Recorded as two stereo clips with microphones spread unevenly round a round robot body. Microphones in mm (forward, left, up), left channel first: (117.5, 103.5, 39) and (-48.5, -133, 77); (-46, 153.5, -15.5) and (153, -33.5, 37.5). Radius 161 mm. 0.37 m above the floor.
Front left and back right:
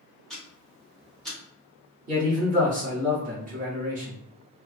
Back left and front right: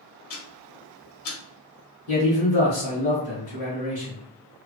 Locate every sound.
0.3 s ticking: 140° left, 0.8 m
2.1 s a man speaking: 175° left, 1.2 m